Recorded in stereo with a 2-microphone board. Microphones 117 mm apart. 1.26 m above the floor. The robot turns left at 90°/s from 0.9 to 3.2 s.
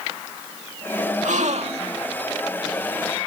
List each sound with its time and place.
1.2 s a gasp: 80° right; by 2.1 s 155° right